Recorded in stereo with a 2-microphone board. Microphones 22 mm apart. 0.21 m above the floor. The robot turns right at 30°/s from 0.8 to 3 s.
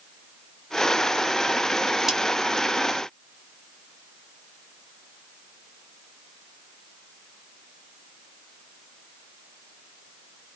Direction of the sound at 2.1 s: 15° right (ahead or behind).